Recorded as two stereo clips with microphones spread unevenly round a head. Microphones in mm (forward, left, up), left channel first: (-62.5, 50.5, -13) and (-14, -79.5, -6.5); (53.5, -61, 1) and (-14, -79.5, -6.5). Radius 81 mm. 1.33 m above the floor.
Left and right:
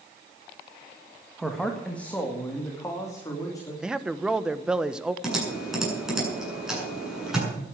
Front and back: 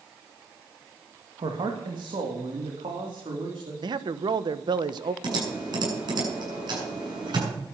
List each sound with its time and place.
1.4 s a man speaking: 160° right, 1.8 m; by 3.7 s 175° left, 3.5 m
3.8 s a man speaking: 155° right, 1.0 m
5.2 s typing on a keyboard: 155° right, 8 m